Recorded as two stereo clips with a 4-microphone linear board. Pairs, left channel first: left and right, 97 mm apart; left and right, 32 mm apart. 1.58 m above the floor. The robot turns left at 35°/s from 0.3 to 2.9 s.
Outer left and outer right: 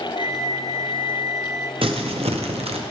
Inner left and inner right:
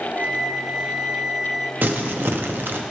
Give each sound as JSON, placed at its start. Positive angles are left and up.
{"t": 0.2, "sound": "a flute", "azimuth_deg": -70, "distance_m": 0.7}
{"t": 1.8, "sound": "crumpling", "azimuth_deg": -65, "distance_m": 0.8}